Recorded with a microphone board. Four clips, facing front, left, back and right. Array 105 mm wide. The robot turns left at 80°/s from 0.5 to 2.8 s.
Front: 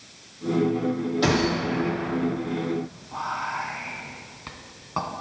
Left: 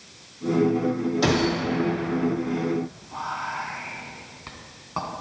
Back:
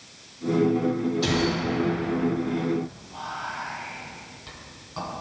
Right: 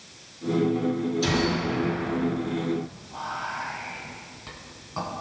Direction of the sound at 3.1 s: 30° left.